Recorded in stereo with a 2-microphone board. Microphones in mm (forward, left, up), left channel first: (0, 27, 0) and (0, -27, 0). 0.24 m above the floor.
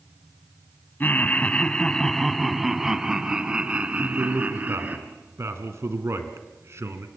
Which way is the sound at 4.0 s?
55° right (ahead or behind).